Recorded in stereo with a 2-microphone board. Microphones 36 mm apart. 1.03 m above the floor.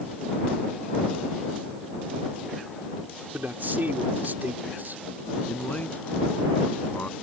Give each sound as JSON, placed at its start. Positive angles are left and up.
{"t": 3.3, "sound": "a man speaking", "side_deg": -60}
{"t": 5.5, "sound": "a man speaking", "side_deg": 50}